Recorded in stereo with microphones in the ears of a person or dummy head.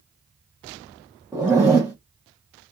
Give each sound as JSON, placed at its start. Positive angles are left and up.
{"t": 1.3, "sound": "a zipper", "side_deg": -10, "distance_m": 0.7}